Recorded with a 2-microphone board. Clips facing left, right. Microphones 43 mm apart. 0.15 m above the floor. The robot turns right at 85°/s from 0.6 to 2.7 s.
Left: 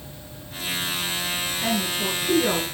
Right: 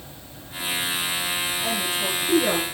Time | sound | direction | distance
1.6 | a woman speaking | 105° left | 2.5 m